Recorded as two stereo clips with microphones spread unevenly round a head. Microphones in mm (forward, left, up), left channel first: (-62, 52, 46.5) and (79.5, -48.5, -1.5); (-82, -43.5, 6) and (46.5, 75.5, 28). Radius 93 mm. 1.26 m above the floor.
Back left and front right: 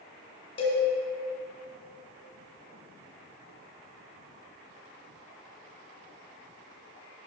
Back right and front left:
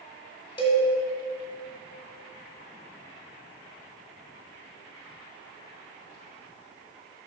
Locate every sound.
0.6 s a cowbell: 165° left, 1.4 m